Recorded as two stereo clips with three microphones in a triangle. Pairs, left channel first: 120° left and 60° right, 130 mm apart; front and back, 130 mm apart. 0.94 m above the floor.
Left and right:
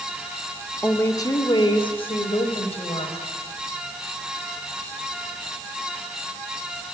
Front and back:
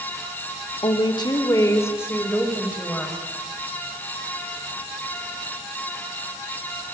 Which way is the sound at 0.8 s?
45° left.